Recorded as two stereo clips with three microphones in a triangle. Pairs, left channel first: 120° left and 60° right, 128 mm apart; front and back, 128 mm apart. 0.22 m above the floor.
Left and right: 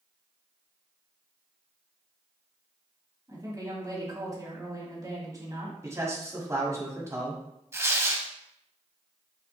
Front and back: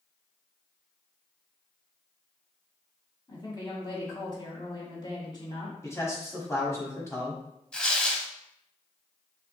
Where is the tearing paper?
70° right, 0.6 m.